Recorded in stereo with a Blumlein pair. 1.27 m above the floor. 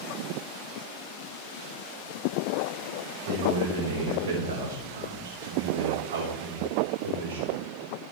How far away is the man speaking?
About 4.5 m.